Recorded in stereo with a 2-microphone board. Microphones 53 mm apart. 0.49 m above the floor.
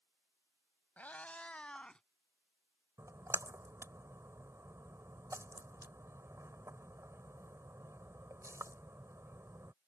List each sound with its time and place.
1.0 s a cat meowing: 30° left (ahead or behind); by 2.0 s 15° left (ahead or behind)
3.0 s a splash: 65° right (ahead or behind)